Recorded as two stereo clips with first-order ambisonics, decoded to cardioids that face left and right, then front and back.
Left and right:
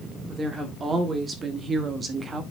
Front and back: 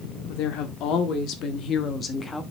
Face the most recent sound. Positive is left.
turn(degrees=-60)